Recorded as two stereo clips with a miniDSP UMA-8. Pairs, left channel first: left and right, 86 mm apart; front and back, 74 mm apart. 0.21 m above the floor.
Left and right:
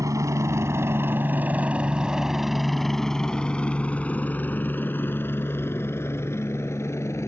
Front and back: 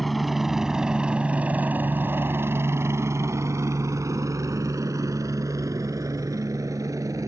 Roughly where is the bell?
No bell in this recording.